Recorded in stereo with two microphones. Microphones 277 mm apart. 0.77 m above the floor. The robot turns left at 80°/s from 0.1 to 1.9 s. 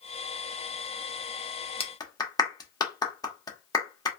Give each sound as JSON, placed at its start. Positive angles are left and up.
{"t": 1.8, "sound": "a clap", "side_deg": 20, "distance_m": 1.0}